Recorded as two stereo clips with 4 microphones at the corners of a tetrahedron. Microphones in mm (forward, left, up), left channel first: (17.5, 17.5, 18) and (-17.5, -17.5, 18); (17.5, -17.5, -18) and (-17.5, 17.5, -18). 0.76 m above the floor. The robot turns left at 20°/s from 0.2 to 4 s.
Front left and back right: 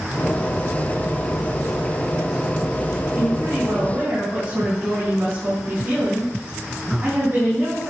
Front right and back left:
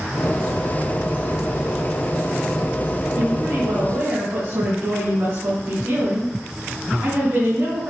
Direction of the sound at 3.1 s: 175° right.